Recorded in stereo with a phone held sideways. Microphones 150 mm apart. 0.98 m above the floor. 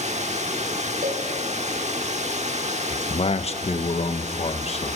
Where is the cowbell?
80° right, 4 m.